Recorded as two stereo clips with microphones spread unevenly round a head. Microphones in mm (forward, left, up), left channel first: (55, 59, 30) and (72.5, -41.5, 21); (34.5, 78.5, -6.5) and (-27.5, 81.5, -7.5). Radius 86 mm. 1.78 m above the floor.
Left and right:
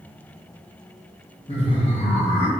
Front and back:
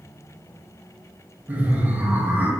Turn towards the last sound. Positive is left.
turn(degrees=120)